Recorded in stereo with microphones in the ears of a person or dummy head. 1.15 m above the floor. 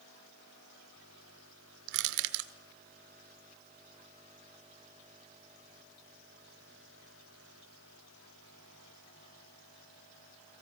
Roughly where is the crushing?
Right.